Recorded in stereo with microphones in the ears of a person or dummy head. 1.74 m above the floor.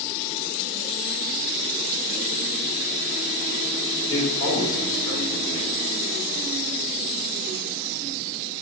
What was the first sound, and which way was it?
A man speaking, 25° left (ahead or behind).